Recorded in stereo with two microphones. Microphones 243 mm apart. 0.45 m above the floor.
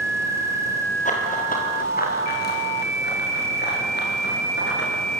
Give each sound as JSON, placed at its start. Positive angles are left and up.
{"t": 1.1, "sound": "running footsteps", "side_deg": 30, "distance_m": 6.0}